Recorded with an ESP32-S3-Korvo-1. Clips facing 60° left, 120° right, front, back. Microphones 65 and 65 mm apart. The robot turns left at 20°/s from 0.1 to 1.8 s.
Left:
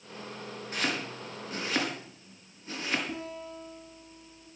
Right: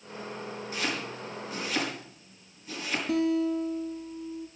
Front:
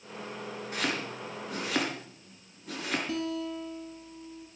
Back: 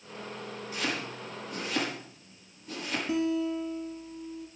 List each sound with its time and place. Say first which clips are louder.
0.7 s chopping: left 1 dB, front 1 dB; 25° left, 4.5 m; by 3.0 s 5° left, 4.5 m
3.1 s a guitar: right 13 dB, back 5 dB; 105° right, 2.5 m